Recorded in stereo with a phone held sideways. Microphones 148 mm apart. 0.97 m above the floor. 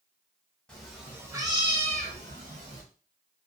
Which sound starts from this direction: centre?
A cat meowing, at 0.7 s.